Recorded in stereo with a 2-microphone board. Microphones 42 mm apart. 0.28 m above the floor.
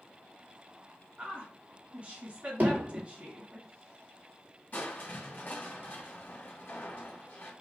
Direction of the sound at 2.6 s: 55° right (ahead or behind).